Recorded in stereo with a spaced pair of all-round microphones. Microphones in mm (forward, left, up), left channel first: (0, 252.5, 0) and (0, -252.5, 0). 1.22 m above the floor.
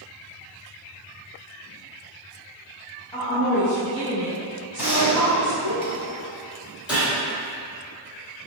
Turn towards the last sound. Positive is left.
turn(degrees=0)  # may be behind; listen again after turning